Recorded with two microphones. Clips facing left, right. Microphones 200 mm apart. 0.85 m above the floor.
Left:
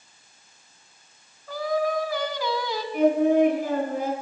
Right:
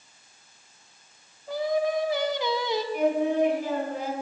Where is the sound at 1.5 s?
20° right (ahead or behind), 1.0 m.